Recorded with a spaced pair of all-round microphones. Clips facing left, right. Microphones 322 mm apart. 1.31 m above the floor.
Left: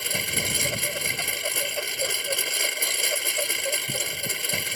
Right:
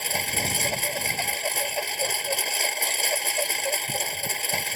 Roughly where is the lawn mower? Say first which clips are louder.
Right 1 dB; centre.